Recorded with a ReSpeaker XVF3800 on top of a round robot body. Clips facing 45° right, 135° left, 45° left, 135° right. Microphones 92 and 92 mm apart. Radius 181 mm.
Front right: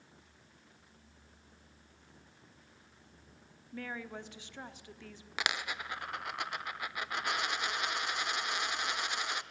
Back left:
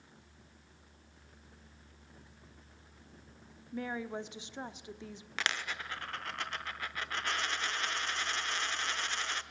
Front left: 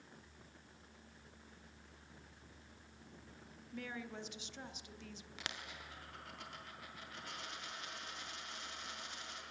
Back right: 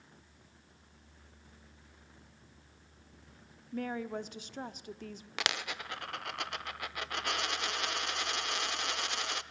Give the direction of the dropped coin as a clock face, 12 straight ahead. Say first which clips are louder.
Front right 1 dB, back right 13 dB; 4 o'clock.